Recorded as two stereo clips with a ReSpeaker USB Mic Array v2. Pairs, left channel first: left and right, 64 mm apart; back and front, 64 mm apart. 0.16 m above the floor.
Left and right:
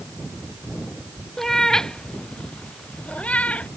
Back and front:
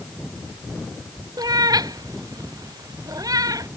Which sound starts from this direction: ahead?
A cat meowing, at 1.4 s.